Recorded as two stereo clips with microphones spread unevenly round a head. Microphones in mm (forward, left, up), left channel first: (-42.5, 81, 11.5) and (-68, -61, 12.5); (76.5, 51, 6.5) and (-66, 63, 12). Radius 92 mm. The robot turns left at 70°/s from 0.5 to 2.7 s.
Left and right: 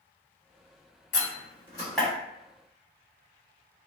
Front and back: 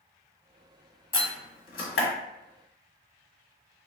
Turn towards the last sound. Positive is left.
turn(degrees=-60)